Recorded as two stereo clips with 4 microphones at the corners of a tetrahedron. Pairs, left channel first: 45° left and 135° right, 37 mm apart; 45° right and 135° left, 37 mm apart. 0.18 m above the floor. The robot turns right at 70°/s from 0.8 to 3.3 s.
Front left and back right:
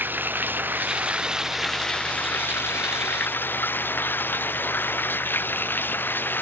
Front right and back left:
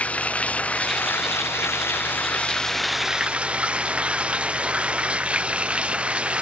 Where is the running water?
100° right; by 6.4 s 75° left.